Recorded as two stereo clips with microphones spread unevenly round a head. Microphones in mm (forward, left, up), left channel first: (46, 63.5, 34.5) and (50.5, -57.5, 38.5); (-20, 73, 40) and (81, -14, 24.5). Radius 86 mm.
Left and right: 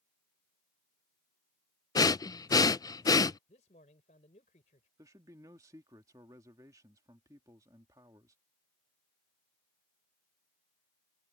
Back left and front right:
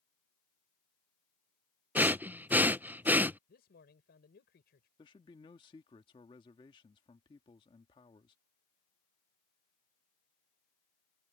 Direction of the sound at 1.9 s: 35° left.